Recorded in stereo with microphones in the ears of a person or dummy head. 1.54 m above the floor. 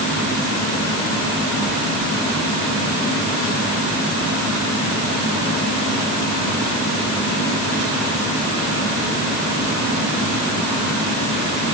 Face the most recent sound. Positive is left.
No sound to turn to.